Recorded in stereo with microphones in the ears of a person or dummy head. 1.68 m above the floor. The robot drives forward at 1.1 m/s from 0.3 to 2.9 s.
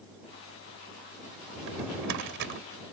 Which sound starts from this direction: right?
A drawer, at 1.6 s.